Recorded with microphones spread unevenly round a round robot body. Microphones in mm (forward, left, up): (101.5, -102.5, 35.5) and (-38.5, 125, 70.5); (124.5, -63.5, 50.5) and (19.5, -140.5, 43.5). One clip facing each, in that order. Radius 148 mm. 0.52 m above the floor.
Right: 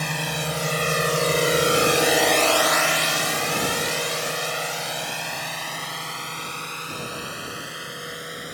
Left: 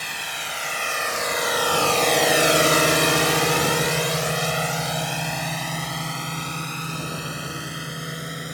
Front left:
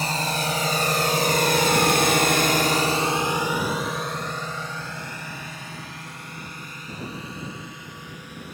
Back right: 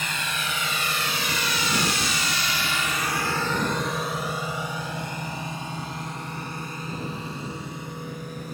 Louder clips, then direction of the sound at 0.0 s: Right 10 dB, front left 6 dB; 20° right.